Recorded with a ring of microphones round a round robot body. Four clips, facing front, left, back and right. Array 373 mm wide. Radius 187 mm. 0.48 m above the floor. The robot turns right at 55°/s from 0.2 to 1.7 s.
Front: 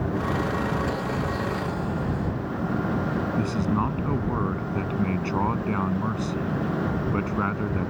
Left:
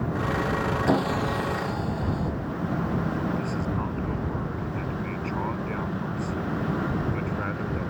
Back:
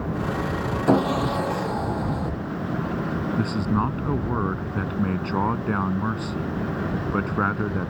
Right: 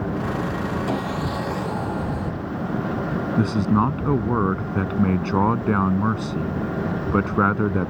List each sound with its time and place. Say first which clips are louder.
0.9 s sawing: left 1 dB, back 7 dB; 165° left; by 2.3 s 150° right
3.4 s a man speaking: right 9 dB, back 2 dB; 95° right